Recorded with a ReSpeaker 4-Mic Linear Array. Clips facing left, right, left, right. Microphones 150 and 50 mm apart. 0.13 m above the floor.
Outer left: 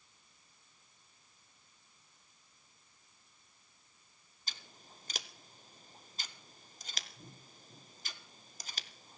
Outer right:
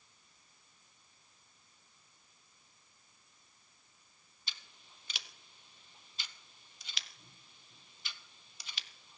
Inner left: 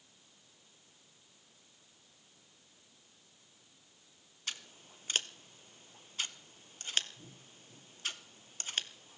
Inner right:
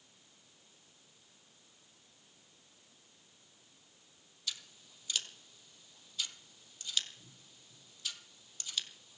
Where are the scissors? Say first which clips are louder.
Outer left 3 dB, inner left 2 dB; 45° left (ahead or behind), 0.7 m.